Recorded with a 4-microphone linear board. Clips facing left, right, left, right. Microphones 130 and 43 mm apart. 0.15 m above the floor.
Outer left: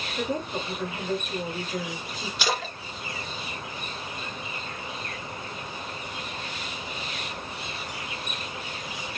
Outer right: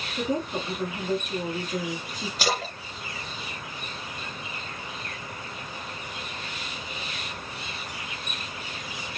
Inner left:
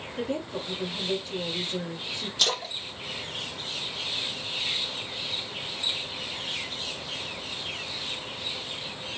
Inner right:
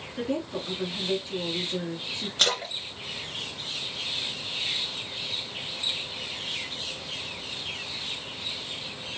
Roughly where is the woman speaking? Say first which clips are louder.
Outer right 2 dB, inner right 1 dB; centre.